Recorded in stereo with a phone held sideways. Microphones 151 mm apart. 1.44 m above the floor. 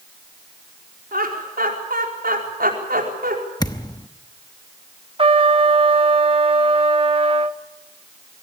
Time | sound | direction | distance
1.1 | laughter | 85° right | 5 m
3.6 | a thud | 25° left (ahead or behind) | 0.9 m
5.2 | a trumpet | 35° right (ahead or behind) | 0.8 m